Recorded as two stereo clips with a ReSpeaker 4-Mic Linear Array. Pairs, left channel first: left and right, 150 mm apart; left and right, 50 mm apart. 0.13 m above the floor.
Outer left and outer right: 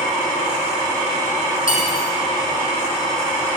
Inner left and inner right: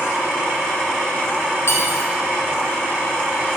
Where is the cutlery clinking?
70° left (ahead or behind), 3 m.